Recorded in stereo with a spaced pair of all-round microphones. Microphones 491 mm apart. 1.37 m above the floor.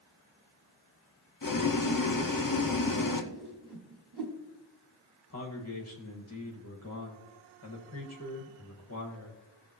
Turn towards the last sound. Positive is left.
turn(degrees=30)  # may be behind; listen again after turning